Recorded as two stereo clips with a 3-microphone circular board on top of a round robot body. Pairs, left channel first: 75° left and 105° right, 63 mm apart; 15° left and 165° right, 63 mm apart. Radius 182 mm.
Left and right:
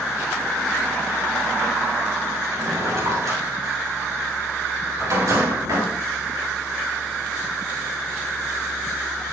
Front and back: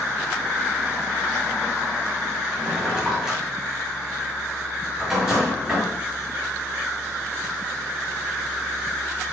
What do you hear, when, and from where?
2.5 s a drawer: 90° right, 9 m